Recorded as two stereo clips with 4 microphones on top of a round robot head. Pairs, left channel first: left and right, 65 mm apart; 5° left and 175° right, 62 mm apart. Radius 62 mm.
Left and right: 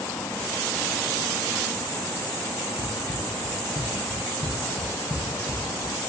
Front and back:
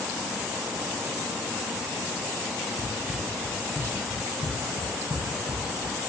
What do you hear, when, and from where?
2.8 s running footsteps: 105° left, 4.5 m; by 6.0 s 60° left, 6.5 m